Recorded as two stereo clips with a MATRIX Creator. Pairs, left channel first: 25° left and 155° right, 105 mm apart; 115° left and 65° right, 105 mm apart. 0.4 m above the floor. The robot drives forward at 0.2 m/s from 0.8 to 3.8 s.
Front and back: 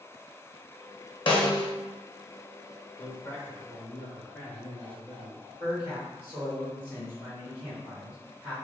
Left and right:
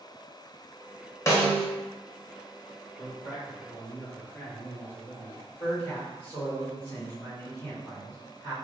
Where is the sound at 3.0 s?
65° left, 0.8 m; by 5.4 s 85° left, 0.8 m.